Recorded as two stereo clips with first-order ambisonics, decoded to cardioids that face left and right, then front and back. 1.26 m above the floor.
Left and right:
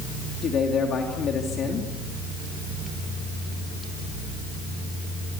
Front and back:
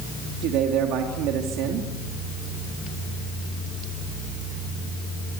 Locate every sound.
0.4 s a man speaking: 150° left, 2.5 m